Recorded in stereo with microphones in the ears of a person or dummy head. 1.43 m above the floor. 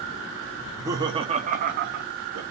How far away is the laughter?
About 0.9 m.